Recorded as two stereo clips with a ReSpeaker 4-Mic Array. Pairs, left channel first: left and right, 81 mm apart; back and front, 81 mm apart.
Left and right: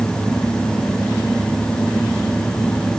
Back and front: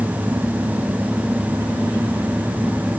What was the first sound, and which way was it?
Only background noise.